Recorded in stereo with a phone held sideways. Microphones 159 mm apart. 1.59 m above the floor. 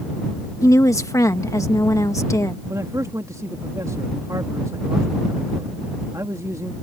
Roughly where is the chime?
No chime in this recording.